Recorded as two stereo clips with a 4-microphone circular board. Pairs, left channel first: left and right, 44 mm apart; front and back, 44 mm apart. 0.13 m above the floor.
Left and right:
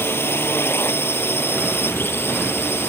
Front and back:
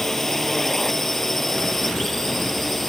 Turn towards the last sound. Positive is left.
turn(degrees=85)